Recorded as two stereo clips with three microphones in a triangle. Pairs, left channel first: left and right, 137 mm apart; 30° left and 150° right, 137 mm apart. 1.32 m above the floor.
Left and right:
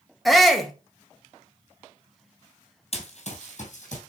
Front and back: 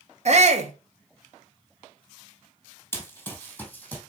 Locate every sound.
0.2 s a shout: straight behind, 1.5 m
2.9 s running footsteps: 95° left, 2.0 m; by 4.0 s 105° left, 3 m